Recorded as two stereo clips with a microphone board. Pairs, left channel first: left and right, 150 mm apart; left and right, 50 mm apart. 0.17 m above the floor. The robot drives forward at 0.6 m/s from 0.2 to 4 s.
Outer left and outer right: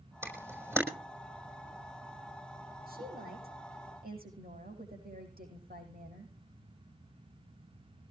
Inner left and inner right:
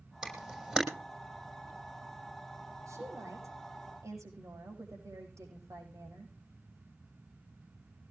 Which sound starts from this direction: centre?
A camera shutter, at 0.2 s.